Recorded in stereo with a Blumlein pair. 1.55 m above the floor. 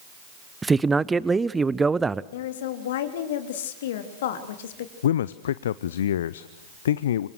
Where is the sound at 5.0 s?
60° left, 0.6 m.